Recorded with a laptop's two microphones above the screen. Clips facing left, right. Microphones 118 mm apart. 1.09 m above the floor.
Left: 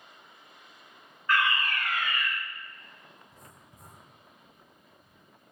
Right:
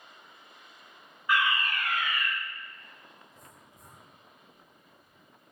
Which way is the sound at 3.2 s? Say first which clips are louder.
Even; 45° left (ahead or behind).